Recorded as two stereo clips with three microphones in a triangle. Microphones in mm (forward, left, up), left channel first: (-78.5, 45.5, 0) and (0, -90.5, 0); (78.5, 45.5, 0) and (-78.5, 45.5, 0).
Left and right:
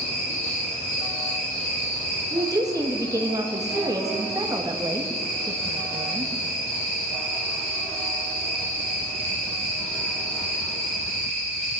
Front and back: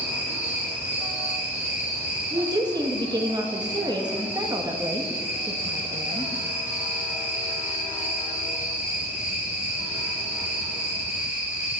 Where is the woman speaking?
125° right, 1.4 m.